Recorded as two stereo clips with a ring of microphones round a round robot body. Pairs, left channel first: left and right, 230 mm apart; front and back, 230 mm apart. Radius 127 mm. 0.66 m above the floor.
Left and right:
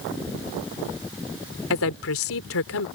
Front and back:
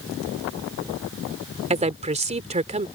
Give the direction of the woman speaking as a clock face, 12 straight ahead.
8 o'clock.